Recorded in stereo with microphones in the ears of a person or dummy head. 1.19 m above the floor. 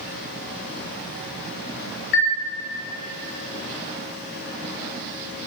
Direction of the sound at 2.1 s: 65° left (ahead or behind).